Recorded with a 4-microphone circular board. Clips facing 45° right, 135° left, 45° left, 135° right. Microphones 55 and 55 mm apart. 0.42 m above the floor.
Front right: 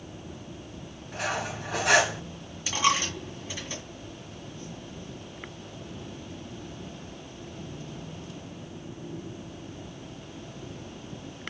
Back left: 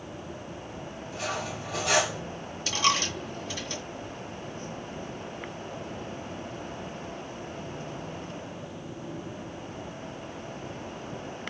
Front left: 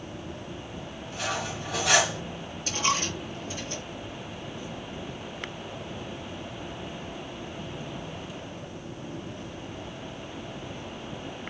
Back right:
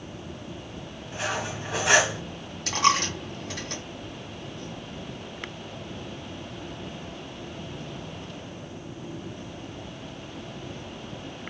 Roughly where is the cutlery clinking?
Right.